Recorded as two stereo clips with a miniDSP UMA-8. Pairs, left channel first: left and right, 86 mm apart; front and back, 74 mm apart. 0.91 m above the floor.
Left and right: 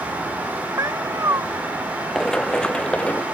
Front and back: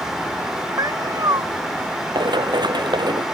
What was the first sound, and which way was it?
A cat meowing, 145° right.